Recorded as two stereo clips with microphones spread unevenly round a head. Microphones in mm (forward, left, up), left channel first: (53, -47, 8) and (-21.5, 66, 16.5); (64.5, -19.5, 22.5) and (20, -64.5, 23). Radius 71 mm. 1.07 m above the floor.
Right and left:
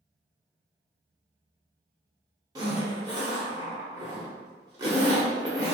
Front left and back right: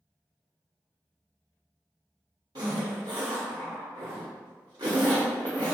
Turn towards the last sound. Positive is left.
turn(degrees=-175)